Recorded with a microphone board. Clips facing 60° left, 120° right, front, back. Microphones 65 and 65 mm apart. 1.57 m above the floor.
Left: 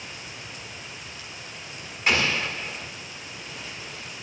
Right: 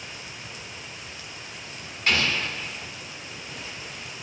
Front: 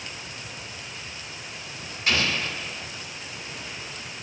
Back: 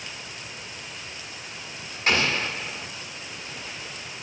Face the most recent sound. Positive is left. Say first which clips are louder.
# left 1 dB, back 2 dB
turn(degrees=135)